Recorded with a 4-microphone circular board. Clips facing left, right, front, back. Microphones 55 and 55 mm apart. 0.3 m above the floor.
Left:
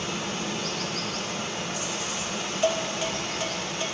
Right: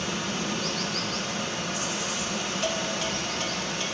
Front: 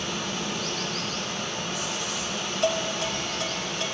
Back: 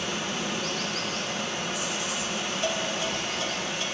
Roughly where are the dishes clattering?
Ahead.